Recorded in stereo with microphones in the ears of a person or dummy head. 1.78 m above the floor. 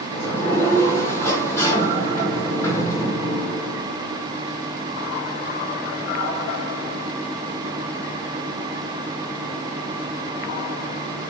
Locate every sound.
0.1 s a sliding door: 20° left (ahead or behind), 1.2 m